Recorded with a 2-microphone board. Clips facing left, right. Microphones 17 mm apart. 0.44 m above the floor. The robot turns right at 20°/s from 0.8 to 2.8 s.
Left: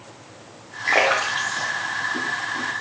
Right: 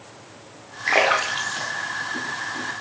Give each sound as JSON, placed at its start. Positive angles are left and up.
{"t": 0.9, "sound": "a splash", "side_deg": -10, "distance_m": 0.5}